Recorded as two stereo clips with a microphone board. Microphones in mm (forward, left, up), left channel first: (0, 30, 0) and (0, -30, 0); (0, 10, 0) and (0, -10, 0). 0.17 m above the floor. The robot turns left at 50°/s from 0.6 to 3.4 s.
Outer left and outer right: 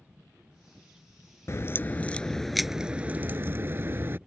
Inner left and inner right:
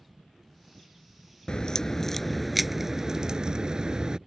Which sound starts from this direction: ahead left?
A crack, at 1.5 s.